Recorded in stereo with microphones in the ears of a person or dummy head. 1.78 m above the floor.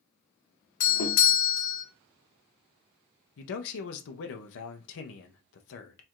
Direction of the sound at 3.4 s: 70° left (ahead or behind).